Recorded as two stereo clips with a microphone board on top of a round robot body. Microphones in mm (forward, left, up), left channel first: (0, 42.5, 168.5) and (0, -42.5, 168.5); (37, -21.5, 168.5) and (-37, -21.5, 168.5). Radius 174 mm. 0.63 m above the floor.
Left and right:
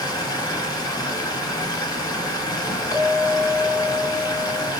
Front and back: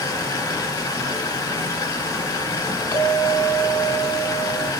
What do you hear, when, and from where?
0.0 s running water: 45° left, 4.5 m
2.9 s a clink: 50° left, 4.5 m